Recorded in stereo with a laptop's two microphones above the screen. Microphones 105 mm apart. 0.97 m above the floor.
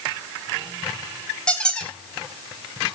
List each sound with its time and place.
1.5 s a squeak: 10° left (ahead or behind), 2.5 m